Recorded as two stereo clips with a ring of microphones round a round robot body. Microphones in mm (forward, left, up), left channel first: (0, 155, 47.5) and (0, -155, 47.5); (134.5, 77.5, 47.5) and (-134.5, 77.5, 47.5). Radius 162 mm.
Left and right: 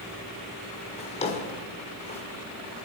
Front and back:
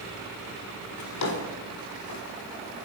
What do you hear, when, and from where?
1.0 s a drawer: 20° left, 1.8 m